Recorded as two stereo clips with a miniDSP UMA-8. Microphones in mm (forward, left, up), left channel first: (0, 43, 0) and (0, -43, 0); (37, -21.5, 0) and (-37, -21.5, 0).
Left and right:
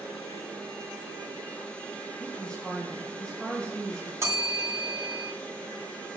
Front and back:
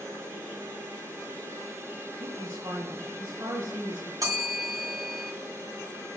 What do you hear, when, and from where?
2.2 s a woman speaking: 170° left, 2.5 m
4.2 s a bell: 140° right, 3 m